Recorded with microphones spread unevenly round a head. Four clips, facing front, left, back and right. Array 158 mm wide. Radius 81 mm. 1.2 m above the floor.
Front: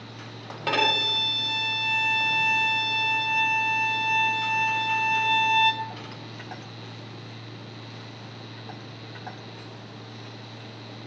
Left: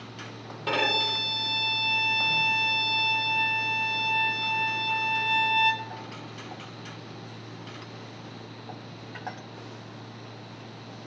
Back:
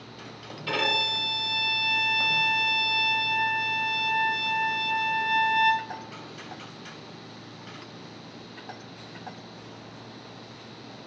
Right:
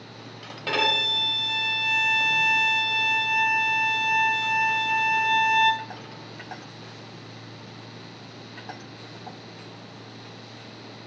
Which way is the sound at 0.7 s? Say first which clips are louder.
Right 1 dB, front 3 dB; 10° right.